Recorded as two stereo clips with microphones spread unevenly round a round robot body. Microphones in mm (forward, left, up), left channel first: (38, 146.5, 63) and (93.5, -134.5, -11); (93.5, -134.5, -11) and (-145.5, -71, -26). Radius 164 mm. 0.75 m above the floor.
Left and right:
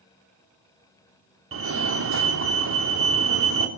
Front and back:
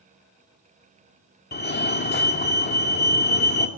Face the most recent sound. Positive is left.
turn(degrees=-60)